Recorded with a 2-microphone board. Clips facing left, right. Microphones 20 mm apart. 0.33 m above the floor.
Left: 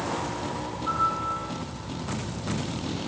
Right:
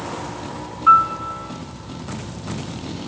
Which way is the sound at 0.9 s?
75° right (ahead or behind).